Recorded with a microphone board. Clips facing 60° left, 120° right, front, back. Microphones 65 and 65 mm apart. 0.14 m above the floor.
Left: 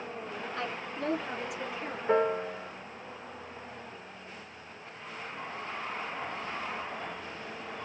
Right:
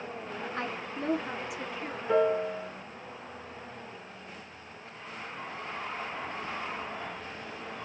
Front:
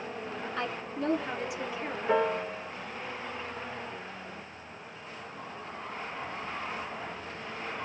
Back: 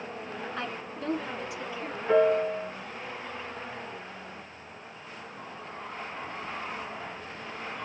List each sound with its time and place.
0.6 s a woman speaking: 100° right, 1.4 m; by 2.0 s 10° right, 1.2 m
2.1 s a piano: 80° left, 1.2 m